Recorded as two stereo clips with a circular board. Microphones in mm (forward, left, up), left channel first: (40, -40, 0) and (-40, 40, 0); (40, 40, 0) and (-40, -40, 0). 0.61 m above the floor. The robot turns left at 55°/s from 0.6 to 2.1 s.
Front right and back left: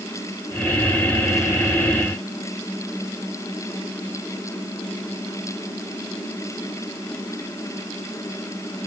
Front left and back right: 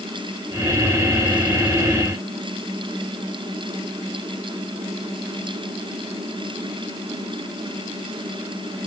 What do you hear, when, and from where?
Only background noise.